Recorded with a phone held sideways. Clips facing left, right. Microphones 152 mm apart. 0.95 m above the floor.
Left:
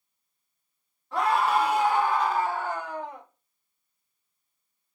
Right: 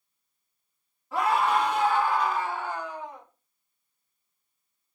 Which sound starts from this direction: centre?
A scream, at 1.1 s.